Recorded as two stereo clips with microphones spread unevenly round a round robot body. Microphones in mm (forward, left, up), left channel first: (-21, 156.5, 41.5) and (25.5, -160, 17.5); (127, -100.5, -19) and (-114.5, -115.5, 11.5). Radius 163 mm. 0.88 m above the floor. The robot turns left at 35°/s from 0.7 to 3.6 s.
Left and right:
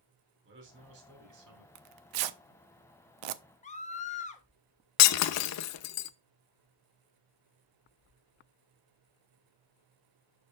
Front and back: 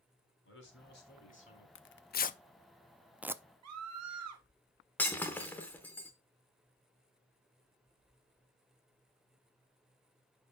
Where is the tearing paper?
40° right, 0.6 m; by 3.4 s 100° right, 0.6 m.